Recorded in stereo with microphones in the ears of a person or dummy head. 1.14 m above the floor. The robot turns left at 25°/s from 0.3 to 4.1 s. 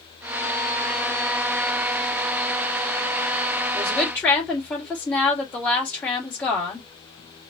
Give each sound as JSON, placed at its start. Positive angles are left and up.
{"t": 3.7, "sound": "a woman speaking", "side_deg": 5, "distance_m": 4.0}